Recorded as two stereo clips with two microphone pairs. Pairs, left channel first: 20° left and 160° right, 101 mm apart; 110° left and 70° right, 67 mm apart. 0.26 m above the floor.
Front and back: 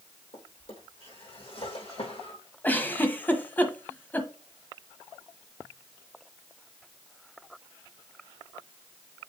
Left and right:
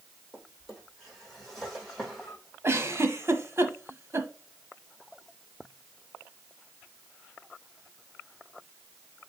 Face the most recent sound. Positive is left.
turn(degrees=-45)